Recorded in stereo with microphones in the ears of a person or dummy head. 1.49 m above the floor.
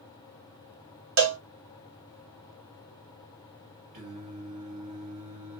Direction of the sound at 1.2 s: 65° right (ahead or behind).